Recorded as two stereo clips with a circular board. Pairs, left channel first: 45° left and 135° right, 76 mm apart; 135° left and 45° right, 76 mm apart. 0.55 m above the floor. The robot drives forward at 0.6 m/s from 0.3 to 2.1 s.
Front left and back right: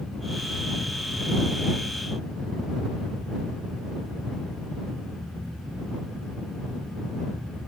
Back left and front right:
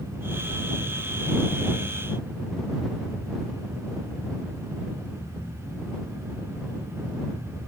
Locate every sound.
Only background noise.